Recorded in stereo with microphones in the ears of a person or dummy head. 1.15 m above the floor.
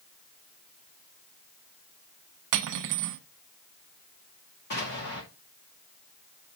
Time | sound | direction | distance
2.5 | cutlery clinking | 65° right (ahead or behind) | 0.9 m
4.7 | an explosion | 50° left (ahead or behind) | 2.5 m